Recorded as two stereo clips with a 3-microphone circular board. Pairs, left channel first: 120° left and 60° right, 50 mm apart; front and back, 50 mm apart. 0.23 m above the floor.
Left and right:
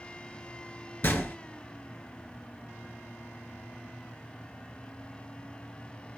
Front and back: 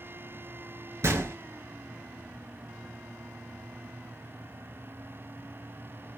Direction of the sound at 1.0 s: 165° left.